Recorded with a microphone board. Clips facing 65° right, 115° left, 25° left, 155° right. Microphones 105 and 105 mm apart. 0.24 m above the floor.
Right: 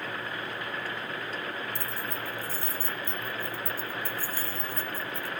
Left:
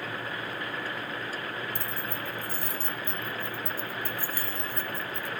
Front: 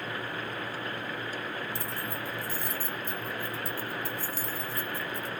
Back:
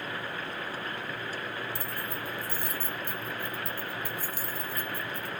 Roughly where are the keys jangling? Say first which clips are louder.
Even, front 1 dB; behind.